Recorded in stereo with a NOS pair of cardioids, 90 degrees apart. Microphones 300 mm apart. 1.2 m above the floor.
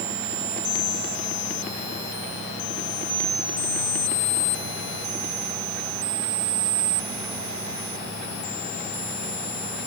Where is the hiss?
I don't hear a hiss.